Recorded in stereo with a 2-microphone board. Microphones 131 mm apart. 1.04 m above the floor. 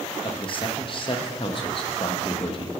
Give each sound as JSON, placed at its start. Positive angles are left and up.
{"t": 0.2, "sound": "a man speaking", "side_deg": 40, "distance_m": 0.9}